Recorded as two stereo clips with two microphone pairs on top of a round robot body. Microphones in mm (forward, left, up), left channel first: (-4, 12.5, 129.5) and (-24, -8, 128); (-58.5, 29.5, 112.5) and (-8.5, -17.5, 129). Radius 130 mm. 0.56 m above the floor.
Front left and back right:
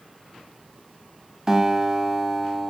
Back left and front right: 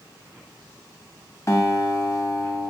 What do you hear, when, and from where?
1.5 s a guitar: 155° left, 1.2 m